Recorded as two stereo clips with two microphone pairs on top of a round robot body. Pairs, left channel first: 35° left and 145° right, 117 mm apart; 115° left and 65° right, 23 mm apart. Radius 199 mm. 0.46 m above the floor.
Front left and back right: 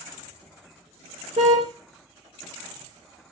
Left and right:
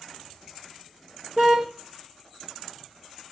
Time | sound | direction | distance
1.4 | a car horn | 110° right | 5 m